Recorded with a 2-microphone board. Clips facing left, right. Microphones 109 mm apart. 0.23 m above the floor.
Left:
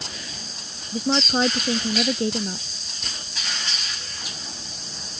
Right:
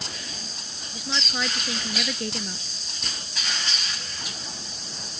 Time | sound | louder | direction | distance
0.9 | a woman speaking | left 9 dB | 45° left (ahead or behind) | ?